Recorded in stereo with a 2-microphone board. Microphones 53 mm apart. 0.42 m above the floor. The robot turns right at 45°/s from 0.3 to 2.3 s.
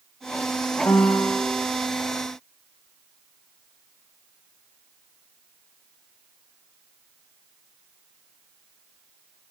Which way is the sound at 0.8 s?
95° left.